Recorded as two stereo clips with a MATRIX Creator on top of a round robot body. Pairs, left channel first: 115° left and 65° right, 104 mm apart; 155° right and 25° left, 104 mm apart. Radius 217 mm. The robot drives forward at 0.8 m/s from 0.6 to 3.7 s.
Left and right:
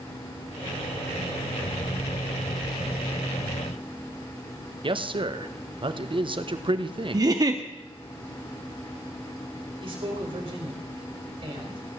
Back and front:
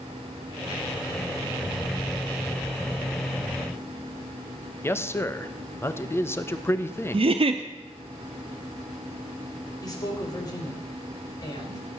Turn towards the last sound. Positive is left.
turn(degrees=-105)